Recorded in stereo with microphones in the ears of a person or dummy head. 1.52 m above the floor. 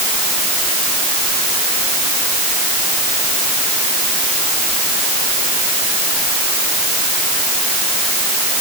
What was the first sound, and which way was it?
Only background noise.